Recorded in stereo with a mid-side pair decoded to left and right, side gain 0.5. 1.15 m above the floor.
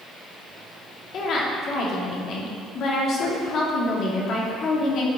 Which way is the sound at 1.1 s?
60° left.